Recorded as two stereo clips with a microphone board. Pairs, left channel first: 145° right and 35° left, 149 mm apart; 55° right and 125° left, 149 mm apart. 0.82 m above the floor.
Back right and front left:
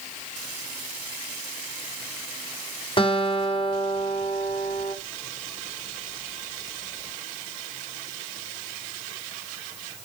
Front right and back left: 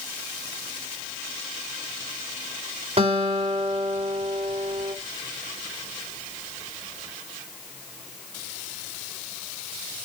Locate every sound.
3.0 s a guitar: 165° left, 2.5 m